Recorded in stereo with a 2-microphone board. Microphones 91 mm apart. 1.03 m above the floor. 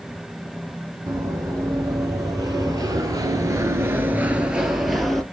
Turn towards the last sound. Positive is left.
turn(degrees=0)  # may be behind; listen again after turning